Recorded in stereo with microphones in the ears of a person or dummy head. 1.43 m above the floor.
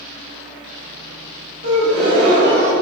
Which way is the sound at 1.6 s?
60° right (ahead or behind).